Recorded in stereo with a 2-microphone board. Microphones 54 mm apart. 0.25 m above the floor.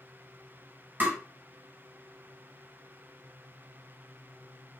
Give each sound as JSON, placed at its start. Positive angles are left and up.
{"t": 1.0, "sound": "tapping", "side_deg": -40, "distance_m": 1.5}